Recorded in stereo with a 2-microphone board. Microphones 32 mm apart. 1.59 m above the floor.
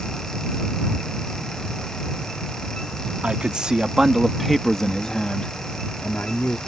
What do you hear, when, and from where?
3.2 s a man speaking: 35° right (ahead or behind); by 6.6 s 65° left (ahead or behind)